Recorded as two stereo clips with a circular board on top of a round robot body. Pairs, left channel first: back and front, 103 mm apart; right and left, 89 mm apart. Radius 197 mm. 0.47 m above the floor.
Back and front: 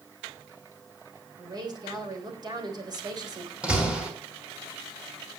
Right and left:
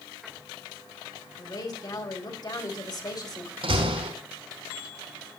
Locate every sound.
1.4 s a woman speaking: 50° right, 3.5 m
3.6 s a door slam: 80° left, 4.5 m